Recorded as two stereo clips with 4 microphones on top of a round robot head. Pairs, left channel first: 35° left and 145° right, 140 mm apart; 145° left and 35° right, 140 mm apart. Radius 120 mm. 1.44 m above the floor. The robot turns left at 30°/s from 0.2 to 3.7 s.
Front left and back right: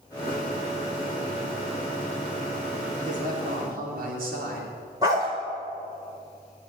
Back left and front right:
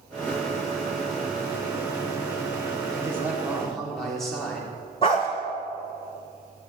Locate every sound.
3.0 s a man speaking: 110° right, 4 m; by 4.7 s 130° right, 4 m
5.0 s a dog barking: 170° left, 1.2 m